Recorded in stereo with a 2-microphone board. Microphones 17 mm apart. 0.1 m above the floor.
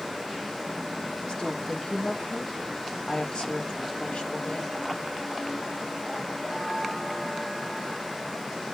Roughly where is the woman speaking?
Left.